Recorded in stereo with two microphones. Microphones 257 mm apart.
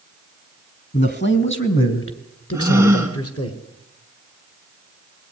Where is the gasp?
10° right (ahead or behind), 2.5 m.